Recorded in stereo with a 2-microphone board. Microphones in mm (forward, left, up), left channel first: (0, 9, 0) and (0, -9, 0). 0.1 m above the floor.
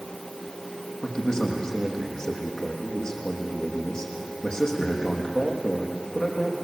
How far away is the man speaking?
About 5.5 m.